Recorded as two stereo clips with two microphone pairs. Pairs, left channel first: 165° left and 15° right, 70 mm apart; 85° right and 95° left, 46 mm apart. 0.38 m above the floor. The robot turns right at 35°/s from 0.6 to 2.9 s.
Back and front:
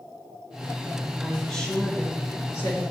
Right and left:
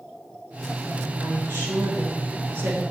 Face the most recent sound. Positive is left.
turn(degrees=130)